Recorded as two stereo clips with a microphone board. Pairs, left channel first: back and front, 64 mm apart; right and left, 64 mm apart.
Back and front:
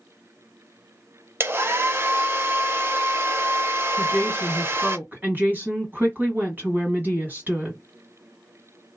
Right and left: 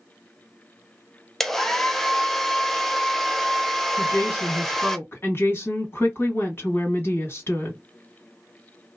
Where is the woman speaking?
50° right, 1.5 m.